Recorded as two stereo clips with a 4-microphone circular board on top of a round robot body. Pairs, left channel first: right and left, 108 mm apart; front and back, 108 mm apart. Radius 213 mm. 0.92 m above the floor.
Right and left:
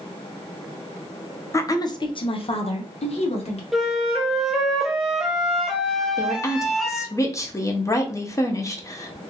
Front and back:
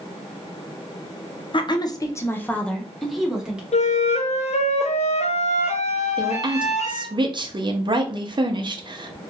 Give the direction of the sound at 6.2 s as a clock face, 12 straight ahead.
5 o'clock.